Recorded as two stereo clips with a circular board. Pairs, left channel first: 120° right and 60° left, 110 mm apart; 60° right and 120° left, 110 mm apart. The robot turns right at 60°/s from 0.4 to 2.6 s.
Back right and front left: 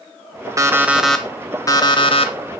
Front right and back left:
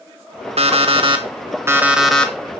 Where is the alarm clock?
120° left, 1.1 m; by 2.3 s 135° right, 1.1 m.